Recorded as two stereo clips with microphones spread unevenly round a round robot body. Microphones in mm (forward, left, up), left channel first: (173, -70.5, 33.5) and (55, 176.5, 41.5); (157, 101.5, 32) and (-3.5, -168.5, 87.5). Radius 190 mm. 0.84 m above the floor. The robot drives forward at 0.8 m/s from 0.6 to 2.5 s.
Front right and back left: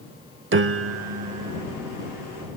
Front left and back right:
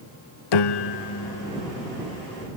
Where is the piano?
80° left; by 1.6 s 135° left.